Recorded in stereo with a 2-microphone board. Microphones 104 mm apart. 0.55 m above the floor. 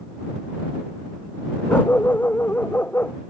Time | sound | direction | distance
1.7 | a dog barking | 20° left (ahead or behind) | ?